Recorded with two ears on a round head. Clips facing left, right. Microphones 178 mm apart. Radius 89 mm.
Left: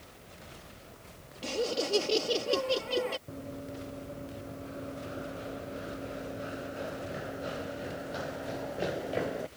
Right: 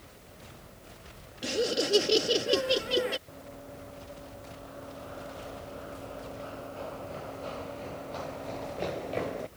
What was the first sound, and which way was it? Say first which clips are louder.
Laughter: right 3 dB; 15° right (ahead or behind).